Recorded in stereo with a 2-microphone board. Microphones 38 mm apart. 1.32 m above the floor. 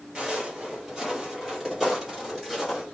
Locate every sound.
0.1 s footsteps: 20° right (ahead or behind), 1.3 m; by 2.8 s centre (ahead or behind), 2 m